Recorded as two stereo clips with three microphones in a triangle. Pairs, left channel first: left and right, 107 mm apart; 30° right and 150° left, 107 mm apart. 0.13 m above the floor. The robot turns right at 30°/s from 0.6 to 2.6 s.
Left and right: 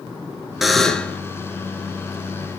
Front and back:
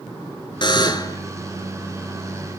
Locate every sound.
0.6 s a buzzer: straight ahead, 1.8 m; by 1.2 s 15° left, 1.8 m